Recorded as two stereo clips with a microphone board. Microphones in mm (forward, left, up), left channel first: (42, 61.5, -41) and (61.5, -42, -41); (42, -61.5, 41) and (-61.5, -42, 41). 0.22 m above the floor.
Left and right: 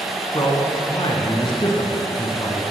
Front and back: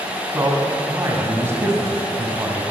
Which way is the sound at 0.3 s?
115° left.